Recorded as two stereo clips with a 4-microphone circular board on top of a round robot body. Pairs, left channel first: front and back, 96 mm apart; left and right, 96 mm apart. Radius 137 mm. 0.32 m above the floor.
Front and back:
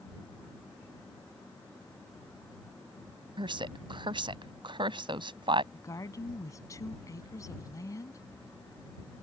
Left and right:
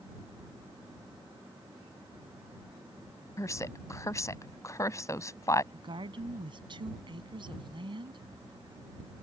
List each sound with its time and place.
3.4 s a woman speaking: 145° left
5.7 s a woman speaking: 55° right